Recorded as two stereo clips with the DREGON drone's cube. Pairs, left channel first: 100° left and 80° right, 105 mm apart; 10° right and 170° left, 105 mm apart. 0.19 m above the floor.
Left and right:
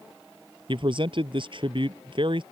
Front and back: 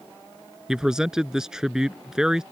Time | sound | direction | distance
0.7 | a man speaking | 105° right | ?